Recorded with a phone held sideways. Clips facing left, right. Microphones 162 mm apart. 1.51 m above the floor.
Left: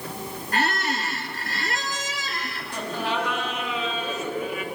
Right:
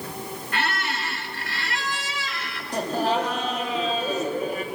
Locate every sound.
0.5 s a squeak: 40° left (ahead or behind), 1.9 m
2.7 s laughter: 35° right (ahead or behind), 3 m